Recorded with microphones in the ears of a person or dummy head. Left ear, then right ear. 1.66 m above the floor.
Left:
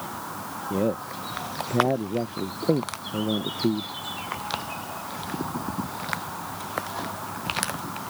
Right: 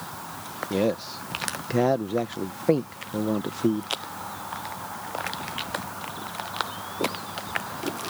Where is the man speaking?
55° right (ahead or behind).